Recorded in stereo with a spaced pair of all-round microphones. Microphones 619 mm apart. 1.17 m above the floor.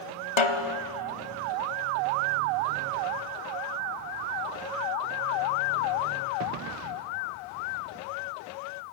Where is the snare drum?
50° left (ahead or behind), 0.9 m.